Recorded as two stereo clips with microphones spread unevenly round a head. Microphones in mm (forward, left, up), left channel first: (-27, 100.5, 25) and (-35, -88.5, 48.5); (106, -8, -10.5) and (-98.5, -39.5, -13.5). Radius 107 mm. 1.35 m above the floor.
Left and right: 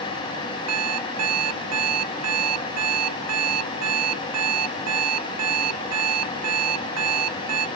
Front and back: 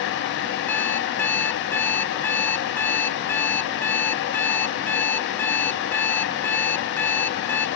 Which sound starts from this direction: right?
An alarm clock, at 0.7 s.